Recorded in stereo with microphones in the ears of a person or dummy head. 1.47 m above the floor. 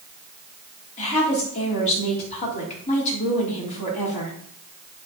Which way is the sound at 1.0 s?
35° left (ahead or behind).